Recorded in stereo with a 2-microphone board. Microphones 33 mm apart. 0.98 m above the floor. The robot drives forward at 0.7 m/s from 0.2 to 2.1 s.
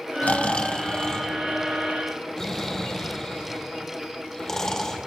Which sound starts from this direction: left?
Snoring, at 0.2 s.